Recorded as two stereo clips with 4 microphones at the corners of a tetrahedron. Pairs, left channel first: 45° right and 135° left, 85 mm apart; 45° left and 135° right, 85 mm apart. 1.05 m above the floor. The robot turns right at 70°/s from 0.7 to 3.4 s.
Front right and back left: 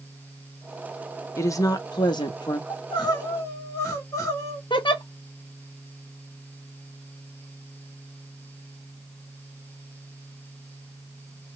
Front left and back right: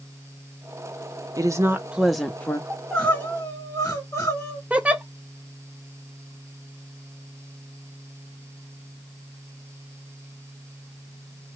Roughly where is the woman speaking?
Right.